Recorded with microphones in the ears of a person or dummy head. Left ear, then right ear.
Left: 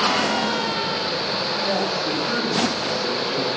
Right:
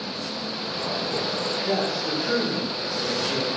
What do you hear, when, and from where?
1.6 s a woman speaking: 5° right (ahead or behind), 3.5 m; by 3.5 s 20° right (ahead or behind), 4 m